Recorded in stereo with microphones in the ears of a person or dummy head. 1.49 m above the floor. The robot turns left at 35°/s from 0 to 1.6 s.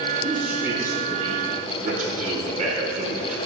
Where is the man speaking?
5° left, 5 m; by 3.4 s 45° right, 5 m.